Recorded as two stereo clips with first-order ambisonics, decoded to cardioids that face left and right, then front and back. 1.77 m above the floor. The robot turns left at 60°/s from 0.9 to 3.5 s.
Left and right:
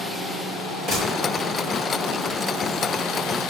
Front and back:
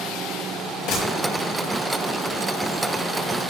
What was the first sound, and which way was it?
A gunshot, 20° right.